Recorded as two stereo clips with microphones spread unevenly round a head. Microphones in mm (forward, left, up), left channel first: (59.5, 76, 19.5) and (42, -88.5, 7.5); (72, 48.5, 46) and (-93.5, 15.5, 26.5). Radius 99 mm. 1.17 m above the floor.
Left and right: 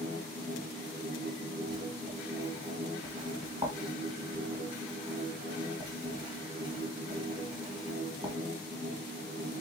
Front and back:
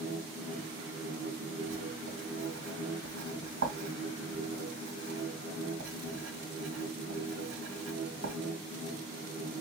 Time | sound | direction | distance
0.0 | a machine running | 140° right | 1.7 m
1.7 | writing | 165° right | 2 m